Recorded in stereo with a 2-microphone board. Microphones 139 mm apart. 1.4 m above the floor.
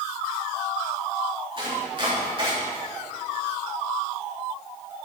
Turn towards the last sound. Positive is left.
turn(degrees=-40)  # may be behind; listen again after turning